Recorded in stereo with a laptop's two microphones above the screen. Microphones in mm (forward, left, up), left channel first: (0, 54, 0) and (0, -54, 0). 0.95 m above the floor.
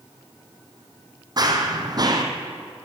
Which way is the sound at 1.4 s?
40° right (ahead or behind).